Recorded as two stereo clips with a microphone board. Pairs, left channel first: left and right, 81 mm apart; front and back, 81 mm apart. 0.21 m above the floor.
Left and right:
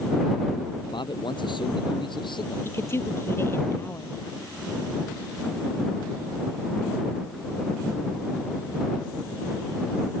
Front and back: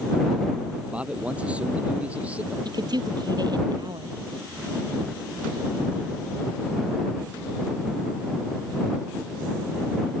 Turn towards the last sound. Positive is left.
turn(degrees=150)